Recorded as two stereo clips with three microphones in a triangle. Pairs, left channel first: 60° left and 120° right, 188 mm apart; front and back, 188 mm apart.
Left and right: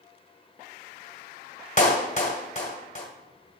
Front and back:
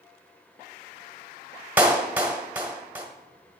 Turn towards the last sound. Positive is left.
turn(degrees=100)